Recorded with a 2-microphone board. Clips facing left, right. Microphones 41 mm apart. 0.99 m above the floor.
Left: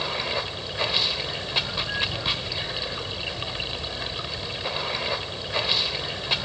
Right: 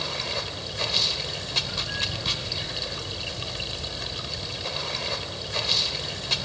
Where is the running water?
20° left (ahead or behind), 0.9 m.